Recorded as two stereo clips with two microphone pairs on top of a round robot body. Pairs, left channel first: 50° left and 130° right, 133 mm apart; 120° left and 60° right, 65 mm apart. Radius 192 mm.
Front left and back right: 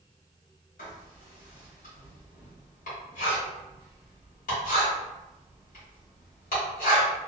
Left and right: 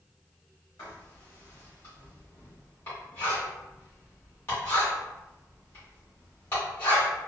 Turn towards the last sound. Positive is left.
turn(degrees=60)